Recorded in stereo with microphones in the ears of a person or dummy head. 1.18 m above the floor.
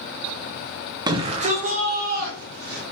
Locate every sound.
1.1 s a shout: 20° right (ahead or behind), 0.8 m; by 2.8 s 50° right (ahead or behind), 2.5 m